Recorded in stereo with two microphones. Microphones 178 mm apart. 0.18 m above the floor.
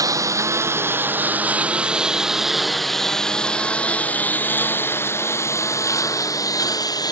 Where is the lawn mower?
20° right (ahead or behind); by 7.1 s 20° left (ahead or behind).